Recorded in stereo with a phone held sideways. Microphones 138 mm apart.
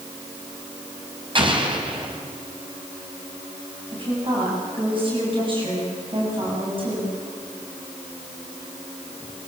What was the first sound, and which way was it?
An explosion, 40° right (ahead or behind).